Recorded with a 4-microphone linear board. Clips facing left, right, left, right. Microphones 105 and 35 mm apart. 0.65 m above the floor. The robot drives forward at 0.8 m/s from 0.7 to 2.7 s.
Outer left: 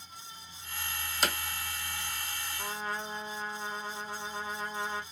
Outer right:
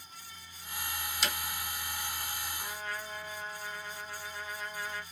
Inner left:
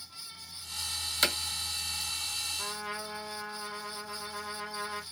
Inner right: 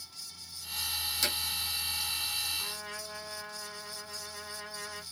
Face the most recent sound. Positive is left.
turn(degrees=35)  # may be behind; listen again after turning